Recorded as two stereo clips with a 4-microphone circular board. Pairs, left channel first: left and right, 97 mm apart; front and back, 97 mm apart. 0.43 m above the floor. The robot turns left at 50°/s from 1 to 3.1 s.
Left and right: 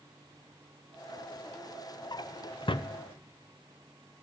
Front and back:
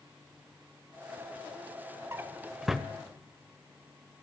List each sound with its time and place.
2.1 s a drawer: 120° left, 0.9 m; by 2.9 s 85° left, 0.9 m